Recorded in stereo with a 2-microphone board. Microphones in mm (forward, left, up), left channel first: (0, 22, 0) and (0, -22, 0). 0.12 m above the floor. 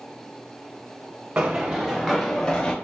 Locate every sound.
1.4 s running footsteps: 35° right (ahead or behind), 0.6 m; by 2.7 s 20° left (ahead or behind), 0.9 m